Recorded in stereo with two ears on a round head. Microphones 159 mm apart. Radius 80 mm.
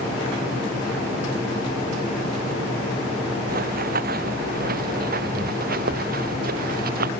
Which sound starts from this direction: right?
Running footsteps, at 3.5 s.